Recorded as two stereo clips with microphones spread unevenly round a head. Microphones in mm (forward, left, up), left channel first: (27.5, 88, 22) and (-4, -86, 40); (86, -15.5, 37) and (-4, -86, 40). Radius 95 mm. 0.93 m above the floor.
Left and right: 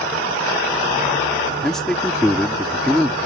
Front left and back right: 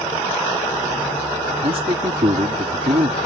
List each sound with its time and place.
1.6 s a man speaking: 165° left